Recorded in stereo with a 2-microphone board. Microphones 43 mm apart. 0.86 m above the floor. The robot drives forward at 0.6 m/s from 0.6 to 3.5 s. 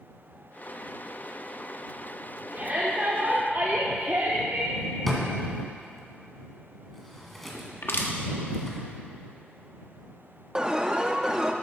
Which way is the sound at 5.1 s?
5° left (ahead or behind).